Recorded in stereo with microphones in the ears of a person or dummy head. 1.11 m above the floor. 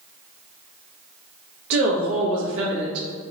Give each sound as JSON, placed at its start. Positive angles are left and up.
{"t": 1.7, "sound": "a woman speaking", "side_deg": -65, "distance_m": 0.7}